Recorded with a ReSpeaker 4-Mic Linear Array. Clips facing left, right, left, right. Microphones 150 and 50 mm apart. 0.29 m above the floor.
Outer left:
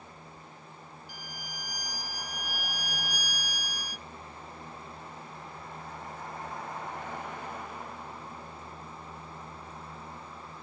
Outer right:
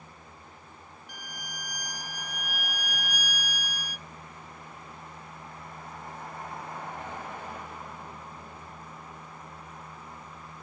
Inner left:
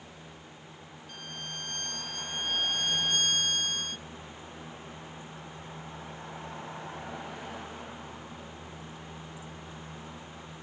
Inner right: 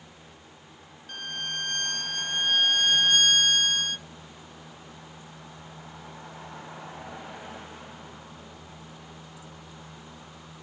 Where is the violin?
65° right (ahead or behind).